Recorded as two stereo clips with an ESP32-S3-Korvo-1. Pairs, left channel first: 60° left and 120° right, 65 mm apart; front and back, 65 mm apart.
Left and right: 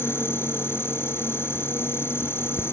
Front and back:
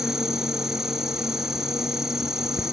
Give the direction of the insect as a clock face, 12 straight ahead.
9 o'clock.